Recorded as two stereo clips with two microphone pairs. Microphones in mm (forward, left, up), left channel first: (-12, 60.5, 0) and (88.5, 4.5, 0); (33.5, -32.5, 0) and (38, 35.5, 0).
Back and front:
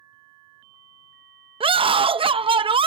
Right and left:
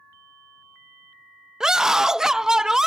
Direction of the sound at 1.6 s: 5° left.